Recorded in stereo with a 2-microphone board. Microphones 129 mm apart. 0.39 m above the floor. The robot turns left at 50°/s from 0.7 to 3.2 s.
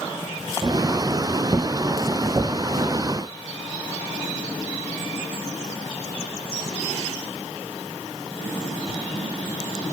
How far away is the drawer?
No drawer in this recording.